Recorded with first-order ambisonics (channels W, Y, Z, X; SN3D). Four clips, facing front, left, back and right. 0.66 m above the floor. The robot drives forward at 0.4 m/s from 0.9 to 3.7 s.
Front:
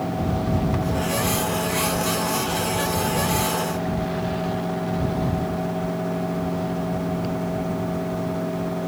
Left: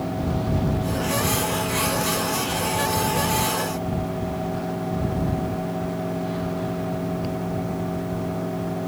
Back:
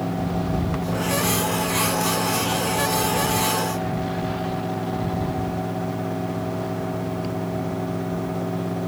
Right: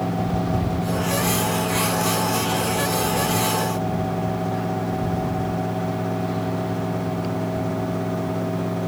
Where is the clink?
I don't hear a clink.